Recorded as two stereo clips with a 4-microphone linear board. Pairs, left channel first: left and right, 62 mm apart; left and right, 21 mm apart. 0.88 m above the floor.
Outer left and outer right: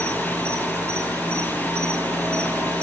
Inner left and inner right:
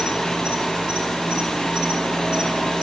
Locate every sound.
0.0 s an insect: 50° right (ahead or behind), 4 m